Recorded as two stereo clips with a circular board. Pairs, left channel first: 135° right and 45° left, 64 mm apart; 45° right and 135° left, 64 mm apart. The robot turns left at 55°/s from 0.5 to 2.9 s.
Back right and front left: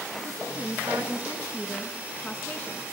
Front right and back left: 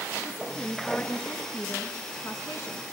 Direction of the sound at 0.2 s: 45° left.